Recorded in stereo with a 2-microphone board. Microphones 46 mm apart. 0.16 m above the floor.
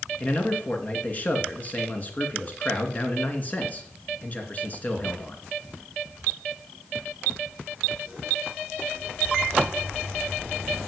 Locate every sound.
0.2 s a man speaking: 35° left (ahead or behind), 2.5 m